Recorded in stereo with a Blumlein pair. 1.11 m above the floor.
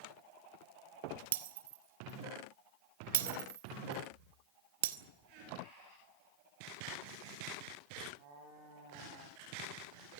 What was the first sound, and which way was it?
Breaking glass, 55° right.